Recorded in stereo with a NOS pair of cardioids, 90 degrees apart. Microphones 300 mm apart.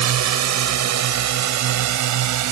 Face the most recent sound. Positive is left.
turn(degrees=-70)